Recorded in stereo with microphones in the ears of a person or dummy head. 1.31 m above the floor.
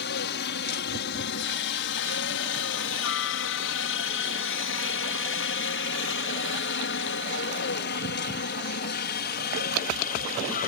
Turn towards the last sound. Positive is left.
turn(degrees=40)  # may be behind; listen again after turning